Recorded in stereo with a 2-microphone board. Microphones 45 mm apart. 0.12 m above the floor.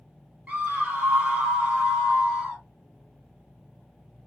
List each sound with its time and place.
0.5 s a scream: 30° right (ahead or behind), 2 m; by 2.6 s 25° right (ahead or behind), 3.5 m